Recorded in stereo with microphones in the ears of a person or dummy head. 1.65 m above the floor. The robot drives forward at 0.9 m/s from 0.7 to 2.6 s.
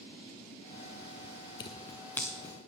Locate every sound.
1.6 s scissors: 25° left (ahead or behind), 0.5 m; by 2.5 s 10° left (ahead or behind), 1.3 m